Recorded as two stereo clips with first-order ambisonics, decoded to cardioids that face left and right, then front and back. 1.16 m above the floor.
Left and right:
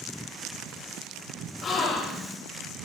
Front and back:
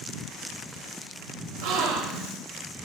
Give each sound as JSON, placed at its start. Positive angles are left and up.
{"t": 1.6, "sound": "a gasp", "azimuth_deg": 150, "distance_m": 1.0}